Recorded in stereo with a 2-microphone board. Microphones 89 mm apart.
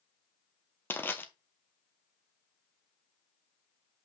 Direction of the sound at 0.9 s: 25° left (ahead or behind).